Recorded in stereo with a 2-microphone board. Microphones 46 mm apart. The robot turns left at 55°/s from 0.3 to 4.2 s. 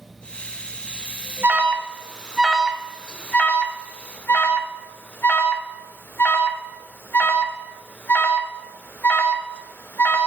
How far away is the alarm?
About 0.7 m.